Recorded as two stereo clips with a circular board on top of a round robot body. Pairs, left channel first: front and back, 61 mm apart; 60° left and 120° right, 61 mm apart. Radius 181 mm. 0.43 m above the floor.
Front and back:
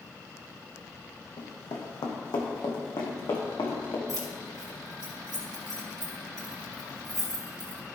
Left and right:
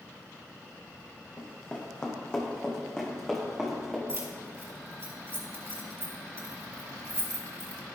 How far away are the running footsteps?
About 1.4 m.